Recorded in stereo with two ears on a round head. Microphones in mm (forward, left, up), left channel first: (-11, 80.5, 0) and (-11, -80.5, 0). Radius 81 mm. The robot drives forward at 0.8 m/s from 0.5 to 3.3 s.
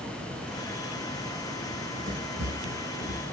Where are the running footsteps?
65° right (ahead or behind), 3.5 m; by 3.2 s 75° right (ahead or behind), 5.5 m.